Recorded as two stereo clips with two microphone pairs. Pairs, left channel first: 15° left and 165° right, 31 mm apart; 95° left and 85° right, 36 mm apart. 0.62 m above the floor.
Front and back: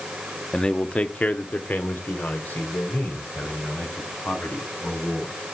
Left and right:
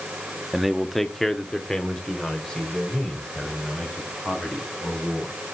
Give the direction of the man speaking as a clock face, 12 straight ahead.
12 o'clock.